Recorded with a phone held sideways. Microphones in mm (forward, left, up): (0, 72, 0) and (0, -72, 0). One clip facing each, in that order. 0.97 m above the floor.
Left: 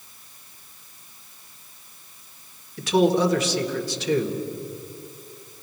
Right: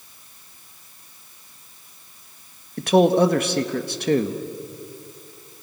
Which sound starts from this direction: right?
A man speaking, at 2.8 s.